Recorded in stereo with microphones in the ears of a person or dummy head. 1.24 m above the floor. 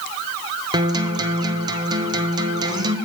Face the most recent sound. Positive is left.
turn(degrees=-20)  # may be behind; listen again after turning